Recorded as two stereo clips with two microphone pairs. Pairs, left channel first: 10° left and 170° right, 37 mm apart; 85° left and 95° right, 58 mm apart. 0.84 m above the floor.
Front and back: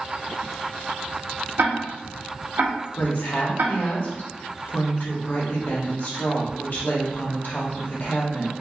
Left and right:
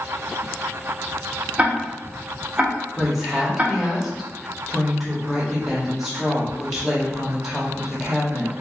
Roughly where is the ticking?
Behind.